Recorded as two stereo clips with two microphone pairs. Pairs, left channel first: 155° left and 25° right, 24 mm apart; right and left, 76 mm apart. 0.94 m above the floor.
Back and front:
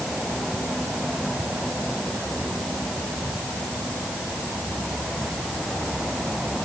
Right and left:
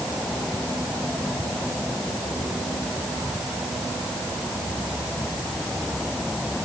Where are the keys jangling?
No keys jangling in this recording.